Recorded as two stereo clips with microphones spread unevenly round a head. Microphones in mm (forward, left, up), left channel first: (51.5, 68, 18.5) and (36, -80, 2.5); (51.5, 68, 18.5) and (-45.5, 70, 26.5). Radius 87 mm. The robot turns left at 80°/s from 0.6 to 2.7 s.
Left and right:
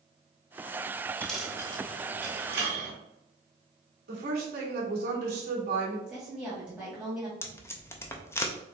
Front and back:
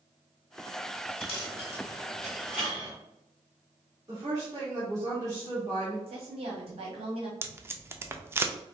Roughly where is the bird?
No bird in this recording.